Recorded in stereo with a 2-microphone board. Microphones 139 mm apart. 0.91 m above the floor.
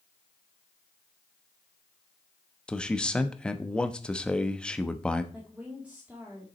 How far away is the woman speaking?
About 2.0 m.